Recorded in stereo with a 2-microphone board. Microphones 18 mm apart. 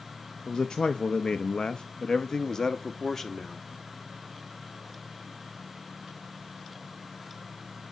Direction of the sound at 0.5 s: 40° left (ahead or behind).